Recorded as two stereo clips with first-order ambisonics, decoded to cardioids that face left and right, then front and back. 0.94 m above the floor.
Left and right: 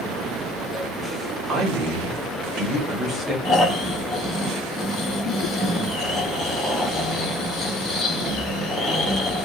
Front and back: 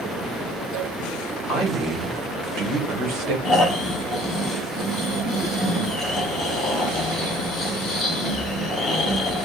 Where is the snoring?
40° left, 0.8 m.